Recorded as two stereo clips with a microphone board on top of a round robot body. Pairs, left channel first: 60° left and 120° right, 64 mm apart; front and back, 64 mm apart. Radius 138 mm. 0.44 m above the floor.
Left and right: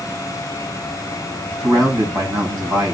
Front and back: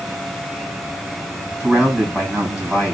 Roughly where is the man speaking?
Right.